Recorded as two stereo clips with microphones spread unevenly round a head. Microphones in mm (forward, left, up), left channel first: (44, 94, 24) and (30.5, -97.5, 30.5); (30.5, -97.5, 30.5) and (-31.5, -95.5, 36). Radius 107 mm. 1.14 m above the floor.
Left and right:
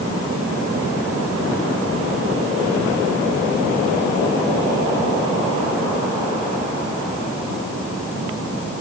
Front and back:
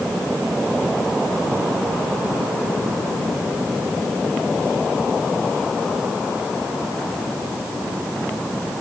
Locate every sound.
Only background noise.